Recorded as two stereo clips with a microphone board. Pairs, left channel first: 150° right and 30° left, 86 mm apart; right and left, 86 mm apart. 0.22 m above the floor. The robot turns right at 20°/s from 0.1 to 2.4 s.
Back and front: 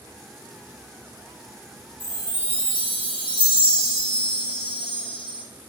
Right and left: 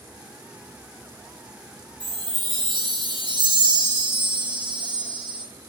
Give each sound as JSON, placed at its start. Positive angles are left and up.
{"t": 2.0, "sound": "a chime", "azimuth_deg": 90, "distance_m": 1.0}